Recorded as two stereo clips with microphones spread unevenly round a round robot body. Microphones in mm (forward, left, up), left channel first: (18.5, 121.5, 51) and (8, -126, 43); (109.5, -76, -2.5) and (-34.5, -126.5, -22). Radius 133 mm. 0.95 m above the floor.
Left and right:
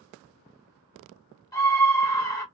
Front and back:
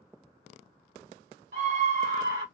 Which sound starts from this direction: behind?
A scream, at 1.5 s.